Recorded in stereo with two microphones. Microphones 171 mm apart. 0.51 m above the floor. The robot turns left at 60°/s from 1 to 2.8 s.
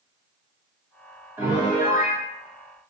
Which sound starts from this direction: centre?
A piano, at 1.4 s.